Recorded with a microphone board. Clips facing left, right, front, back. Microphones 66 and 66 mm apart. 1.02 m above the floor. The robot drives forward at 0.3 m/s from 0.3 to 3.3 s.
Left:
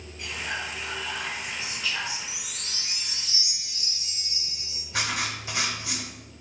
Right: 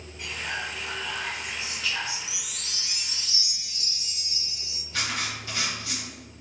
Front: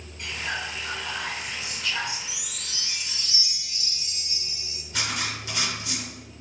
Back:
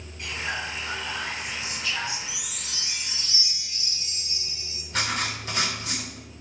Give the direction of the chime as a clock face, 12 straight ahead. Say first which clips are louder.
Even, back 1 dB; 9 o'clock.